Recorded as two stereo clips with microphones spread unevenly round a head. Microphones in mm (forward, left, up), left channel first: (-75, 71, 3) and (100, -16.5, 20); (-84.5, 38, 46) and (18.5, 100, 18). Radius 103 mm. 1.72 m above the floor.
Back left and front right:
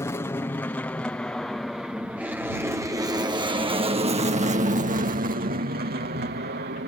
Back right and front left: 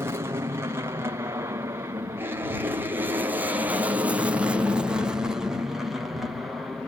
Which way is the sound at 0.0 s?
80° left.